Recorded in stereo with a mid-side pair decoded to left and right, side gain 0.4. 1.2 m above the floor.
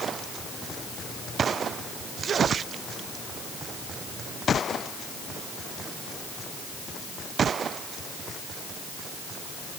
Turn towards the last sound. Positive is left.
No sound to turn to.